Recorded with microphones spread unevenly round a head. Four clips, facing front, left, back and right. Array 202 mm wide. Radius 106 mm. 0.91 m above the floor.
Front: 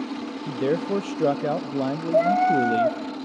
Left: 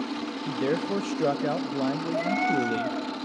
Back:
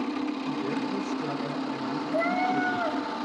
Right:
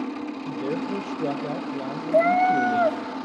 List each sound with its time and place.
0.5 s a man speaking: 10° left, 0.9 m
2.1 s a cat meowing: 45° right, 0.9 m